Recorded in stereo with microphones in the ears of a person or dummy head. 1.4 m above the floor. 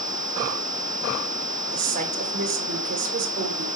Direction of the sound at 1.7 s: 50° right (ahead or behind).